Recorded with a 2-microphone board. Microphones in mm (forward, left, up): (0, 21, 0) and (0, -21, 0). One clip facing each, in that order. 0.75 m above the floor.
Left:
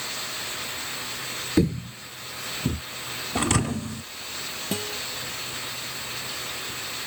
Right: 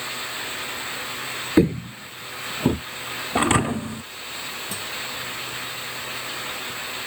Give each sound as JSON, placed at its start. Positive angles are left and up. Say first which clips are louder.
{"t": 1.6, "sound": "footsteps", "louder": "right 5 dB", "side_deg": -30}
{"t": 3.4, "sound": "a thud", "louder": "right 5 dB", "side_deg": -25}
{"t": 4.7, "sound": "a guitar", "louder": "left 5 dB", "side_deg": 45}